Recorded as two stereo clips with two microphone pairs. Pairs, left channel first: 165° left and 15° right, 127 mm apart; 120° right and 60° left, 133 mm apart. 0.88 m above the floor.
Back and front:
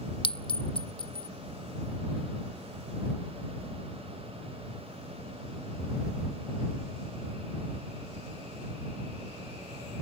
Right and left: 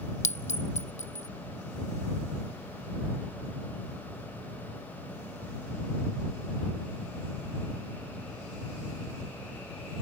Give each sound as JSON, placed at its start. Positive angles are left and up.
{"t": 0.2, "sound": "a clink", "azimuth_deg": -150}